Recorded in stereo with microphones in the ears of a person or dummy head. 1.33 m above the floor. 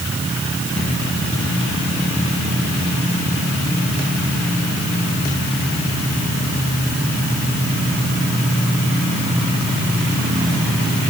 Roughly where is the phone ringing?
I don't hear a phone ringing.